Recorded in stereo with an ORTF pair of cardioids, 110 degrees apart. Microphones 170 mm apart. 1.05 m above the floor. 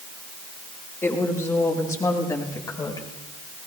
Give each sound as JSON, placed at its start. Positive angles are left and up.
{"t": 1.0, "sound": "a woman speaking", "azimuth_deg": 15, "distance_m": 6.0}